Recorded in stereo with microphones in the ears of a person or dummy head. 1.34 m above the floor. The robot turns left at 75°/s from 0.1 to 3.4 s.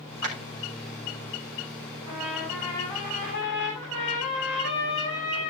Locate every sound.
0.2 s a clap: 80° right, 3.5 m; by 0.3 s 85° right, 3.5 m
2.1 s a trumpet: 145° right, 7.5 m; by 5.5 s 115° left, 7.5 m